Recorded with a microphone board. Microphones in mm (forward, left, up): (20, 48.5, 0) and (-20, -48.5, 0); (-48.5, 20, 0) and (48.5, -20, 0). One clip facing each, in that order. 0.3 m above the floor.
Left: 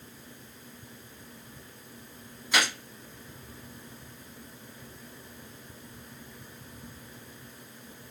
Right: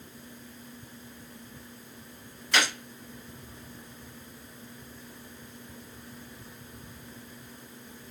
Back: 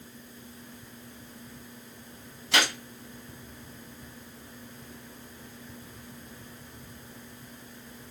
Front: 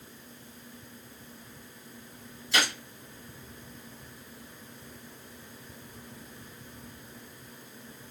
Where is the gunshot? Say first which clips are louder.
Even, back 2 dB; 150° left, 0.8 m.